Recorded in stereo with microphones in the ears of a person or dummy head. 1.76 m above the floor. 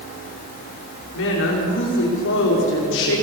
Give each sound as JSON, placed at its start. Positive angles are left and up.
{"t": 1.1, "sound": "a woman speaking", "side_deg": 65, "distance_m": 5.5}